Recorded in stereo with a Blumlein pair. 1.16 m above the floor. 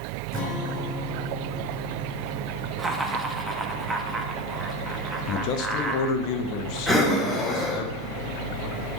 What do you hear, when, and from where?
0.3 s a guitar: 25° left, 3 m
2.8 s laughter: 5° right, 1.5 m
5.3 s a man speaking: 40° left, 1.1 m
6.9 s breathing: 10° left, 1.5 m